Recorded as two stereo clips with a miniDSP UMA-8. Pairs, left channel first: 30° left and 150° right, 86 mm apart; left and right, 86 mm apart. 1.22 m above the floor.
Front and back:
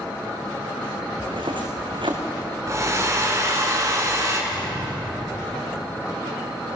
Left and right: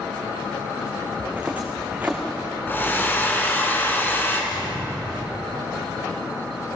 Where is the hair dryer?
155° left, 4 m.